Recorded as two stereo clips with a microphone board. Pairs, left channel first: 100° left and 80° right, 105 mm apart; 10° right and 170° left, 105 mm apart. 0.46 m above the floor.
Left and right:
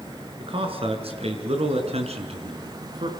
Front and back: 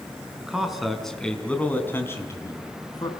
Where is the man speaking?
110° right, 5 m; by 3.1 s 60° right, 4.5 m.